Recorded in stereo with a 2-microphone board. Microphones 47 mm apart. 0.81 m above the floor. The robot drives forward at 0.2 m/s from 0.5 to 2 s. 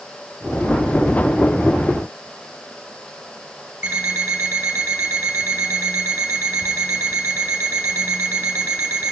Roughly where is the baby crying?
No baby crying in this recording.